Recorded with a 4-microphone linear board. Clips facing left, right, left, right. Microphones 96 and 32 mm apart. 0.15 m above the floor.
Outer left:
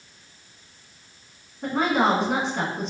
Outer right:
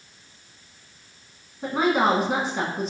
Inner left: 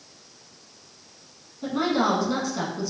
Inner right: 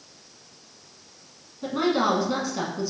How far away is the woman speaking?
About 1.0 m.